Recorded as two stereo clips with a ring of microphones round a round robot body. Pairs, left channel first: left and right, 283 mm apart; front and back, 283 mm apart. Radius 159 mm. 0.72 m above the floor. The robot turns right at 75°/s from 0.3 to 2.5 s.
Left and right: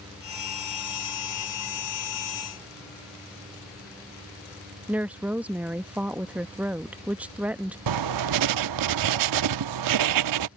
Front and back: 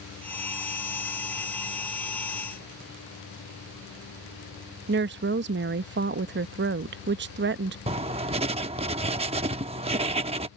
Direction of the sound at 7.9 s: 110° right.